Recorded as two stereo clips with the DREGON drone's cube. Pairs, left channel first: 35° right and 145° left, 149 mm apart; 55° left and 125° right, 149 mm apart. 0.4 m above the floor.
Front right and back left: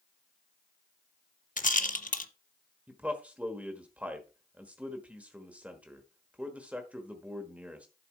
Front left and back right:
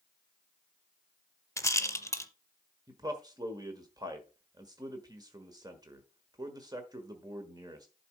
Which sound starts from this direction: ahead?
A rattle, at 1.6 s.